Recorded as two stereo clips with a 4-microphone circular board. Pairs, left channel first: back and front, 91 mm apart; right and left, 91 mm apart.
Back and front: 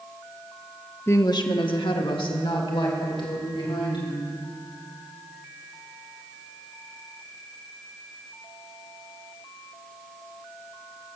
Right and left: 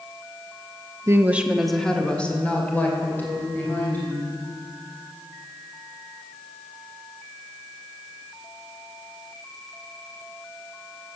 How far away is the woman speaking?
About 0.9 m.